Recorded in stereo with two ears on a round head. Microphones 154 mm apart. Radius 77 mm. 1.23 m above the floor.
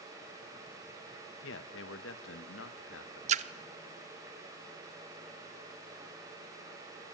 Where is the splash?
40° right (ahead or behind), 0.9 m.